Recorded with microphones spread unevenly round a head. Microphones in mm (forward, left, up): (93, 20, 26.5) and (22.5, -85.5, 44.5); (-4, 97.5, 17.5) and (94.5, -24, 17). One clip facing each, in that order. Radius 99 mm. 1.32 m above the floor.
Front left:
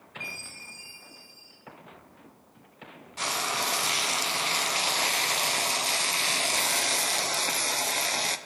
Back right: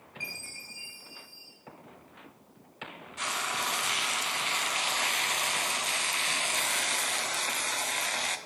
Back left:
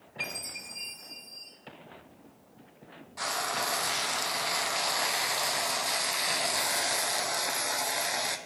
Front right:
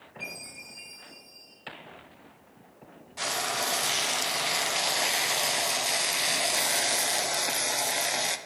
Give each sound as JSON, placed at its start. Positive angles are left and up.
{"t": 0.2, "sound": "a chime", "azimuth_deg": 150, "distance_m": 4.0}
{"t": 3.2, "sound": "frying", "azimuth_deg": 10, "distance_m": 0.7}